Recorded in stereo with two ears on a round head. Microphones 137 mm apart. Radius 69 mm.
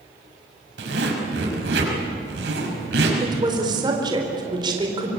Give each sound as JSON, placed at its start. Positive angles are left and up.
{"t": 0.8, "sound": "a zipper", "side_deg": -75, "distance_m": 6.0}
{"t": 3.2, "sound": "a woman speaking", "side_deg": -30, "distance_m": 4.5}